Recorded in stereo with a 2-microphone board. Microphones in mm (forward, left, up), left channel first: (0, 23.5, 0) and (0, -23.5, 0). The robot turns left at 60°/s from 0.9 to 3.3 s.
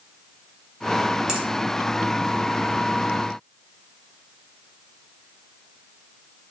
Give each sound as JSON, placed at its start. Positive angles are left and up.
{"t": 1.3, "sound": "a finger snap", "side_deg": -15, "distance_m": 0.9}